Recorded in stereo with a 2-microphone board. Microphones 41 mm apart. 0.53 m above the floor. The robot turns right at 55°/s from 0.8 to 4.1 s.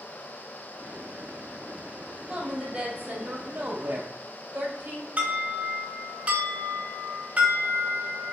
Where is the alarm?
30° right (ahead or behind), 2.0 m.